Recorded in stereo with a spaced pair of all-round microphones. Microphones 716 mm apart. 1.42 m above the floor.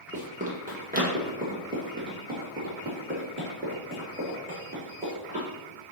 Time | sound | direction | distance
0.1 | running footsteps | 10° right (ahead or behind) | 1.5 m